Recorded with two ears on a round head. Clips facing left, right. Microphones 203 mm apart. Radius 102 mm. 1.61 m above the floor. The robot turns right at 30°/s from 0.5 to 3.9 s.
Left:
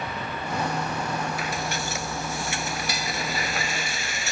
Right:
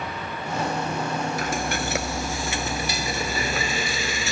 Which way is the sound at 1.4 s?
140° right.